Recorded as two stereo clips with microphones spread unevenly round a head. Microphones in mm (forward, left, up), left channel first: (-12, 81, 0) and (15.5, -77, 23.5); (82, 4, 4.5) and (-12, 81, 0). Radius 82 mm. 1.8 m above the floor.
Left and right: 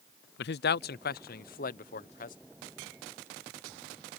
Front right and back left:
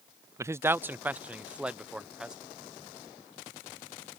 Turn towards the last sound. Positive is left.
turn(degrees=55)